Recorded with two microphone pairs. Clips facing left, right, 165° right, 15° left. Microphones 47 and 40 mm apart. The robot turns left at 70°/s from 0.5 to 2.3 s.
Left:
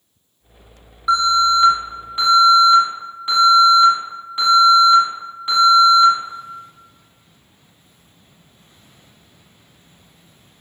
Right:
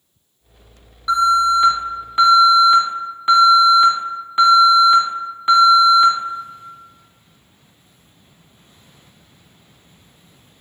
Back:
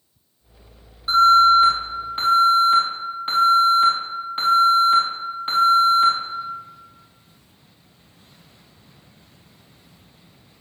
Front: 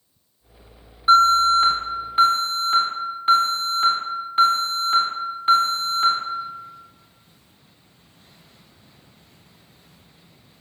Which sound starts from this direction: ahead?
An alarm, at 1.1 s.